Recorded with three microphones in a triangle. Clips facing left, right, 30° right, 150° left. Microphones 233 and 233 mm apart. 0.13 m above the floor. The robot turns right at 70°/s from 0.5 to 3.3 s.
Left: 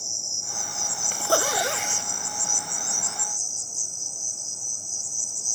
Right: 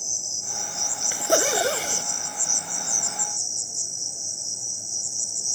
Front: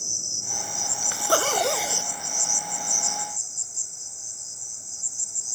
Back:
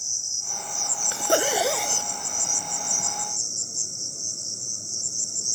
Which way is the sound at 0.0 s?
5° right.